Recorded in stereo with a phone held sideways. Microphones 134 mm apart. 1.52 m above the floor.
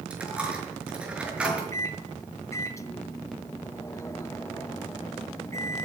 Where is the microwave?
20° left (ahead or behind), 1.4 m.